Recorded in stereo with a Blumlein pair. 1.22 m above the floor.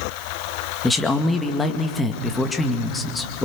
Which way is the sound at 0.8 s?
5° left.